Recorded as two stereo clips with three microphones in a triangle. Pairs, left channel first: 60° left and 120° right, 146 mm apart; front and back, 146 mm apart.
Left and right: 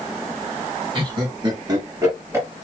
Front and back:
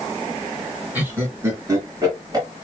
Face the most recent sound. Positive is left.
turn(degrees=-170)